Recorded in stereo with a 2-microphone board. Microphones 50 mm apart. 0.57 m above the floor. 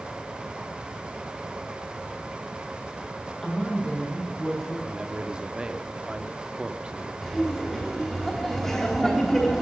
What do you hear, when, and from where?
3.4 s a woman speaking: 10° left (ahead or behind), 5 m
4.9 s a man speaking: 15° right (ahead or behind), 1.0 m
7.2 s laughter: 5° left (ahead or behind), 3.5 m